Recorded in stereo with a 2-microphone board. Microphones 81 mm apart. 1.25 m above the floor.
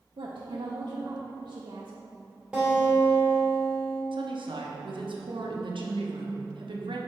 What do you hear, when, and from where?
0.2 s a woman speaking: 70° right (ahead or behind), 0.7 m
2.5 s a guitar: 10° right (ahead or behind), 1.6 m
4.1 s a woman speaking: 80° right, 0.8 m